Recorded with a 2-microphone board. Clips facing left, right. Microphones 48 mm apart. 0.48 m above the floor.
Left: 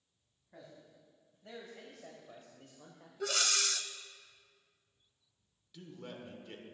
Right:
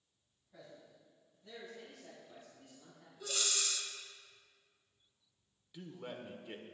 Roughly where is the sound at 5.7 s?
Centre.